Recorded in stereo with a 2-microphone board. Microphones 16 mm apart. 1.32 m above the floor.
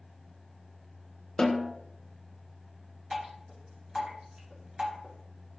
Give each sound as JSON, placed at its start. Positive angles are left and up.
{"t": 1.4, "sound": "a snare drum", "side_deg": 50, "distance_m": 0.9}
{"t": 3.1, "sound": "dripping", "side_deg": -75, "distance_m": 2.5}